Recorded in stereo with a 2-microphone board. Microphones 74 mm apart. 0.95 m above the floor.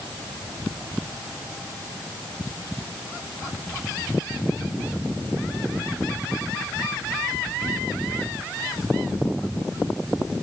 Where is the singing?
I don't hear singing.